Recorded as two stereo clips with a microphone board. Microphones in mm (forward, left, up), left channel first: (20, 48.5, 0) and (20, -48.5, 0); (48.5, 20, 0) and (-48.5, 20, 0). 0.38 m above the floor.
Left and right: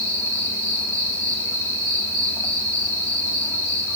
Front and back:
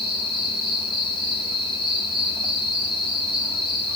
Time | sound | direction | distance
0.0 | an insect | 30° left | 4 m